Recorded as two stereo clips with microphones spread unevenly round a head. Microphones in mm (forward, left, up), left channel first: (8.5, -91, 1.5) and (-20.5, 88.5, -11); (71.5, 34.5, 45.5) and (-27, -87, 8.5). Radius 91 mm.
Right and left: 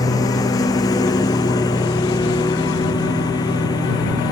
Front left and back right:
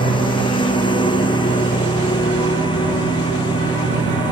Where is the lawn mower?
10° right.